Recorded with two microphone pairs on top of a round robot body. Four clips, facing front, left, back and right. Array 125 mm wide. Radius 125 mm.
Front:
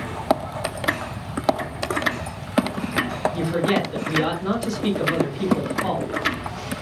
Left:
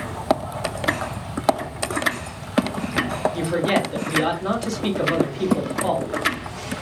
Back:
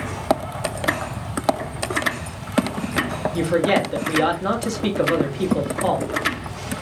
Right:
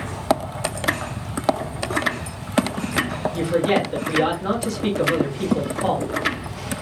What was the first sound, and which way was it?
A woman speaking, 175° right.